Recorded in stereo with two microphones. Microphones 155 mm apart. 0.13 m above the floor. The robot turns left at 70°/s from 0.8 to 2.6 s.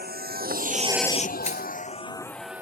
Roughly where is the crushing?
Left.